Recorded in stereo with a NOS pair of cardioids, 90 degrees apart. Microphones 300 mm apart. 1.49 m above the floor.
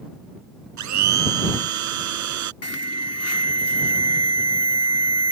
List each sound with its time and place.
0.8 s a blender: 65° right
2.6 s an alarm: 55° left